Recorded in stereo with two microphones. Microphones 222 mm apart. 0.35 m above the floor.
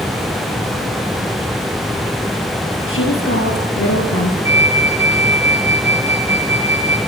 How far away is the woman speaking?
About 7 m.